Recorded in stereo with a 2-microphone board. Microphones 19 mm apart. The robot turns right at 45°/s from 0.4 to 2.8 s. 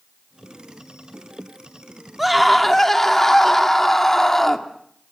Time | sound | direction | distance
2.2 | a scream | 10° right (ahead or behind) | 2 m